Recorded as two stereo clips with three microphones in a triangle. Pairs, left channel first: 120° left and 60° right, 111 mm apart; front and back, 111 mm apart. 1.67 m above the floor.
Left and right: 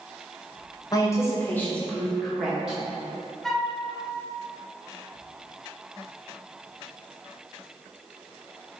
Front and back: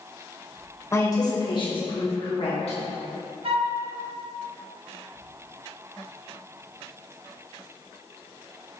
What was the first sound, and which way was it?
A woman speaking, 65° left.